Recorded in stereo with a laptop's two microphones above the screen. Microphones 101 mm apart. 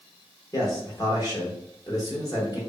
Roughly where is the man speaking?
Left.